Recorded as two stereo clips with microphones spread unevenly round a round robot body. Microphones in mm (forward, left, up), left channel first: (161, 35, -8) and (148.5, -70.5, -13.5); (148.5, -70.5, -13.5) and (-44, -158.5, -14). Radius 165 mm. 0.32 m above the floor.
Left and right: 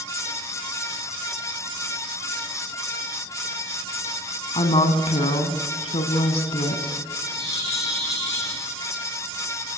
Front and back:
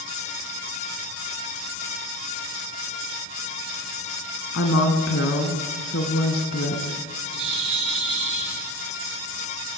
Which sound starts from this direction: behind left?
A bird, at 7.3 s.